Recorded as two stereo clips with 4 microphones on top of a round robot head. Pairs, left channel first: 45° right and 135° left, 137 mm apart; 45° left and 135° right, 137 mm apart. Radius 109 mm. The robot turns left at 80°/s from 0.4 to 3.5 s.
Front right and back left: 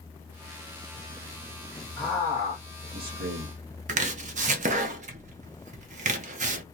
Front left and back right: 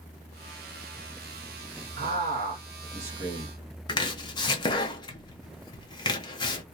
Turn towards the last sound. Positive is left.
turn(degrees=105)